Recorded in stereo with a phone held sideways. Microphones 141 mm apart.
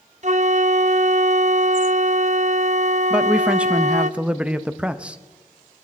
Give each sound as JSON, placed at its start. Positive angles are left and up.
{"t": 0.2, "sound": "a flute", "side_deg": -55, "distance_m": 0.6}
{"t": 3.1, "sound": "a man speaking", "side_deg": -5, "distance_m": 0.7}